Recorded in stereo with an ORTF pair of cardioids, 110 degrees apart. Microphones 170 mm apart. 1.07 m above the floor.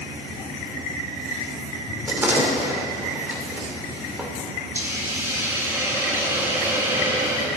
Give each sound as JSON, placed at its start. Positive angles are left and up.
{"t": 2.1, "sound": "a door slam", "azimuth_deg": -10, "distance_m": 2.5}
{"t": 4.8, "sound": "a hiss", "azimuth_deg": -15, "distance_m": 2.0}